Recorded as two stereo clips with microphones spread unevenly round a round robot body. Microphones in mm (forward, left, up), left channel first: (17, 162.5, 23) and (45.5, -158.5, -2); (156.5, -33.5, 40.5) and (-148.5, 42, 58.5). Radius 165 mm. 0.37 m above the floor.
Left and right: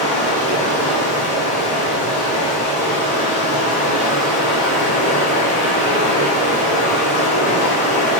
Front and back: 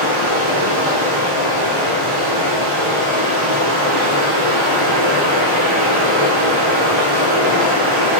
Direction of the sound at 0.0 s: 155° left.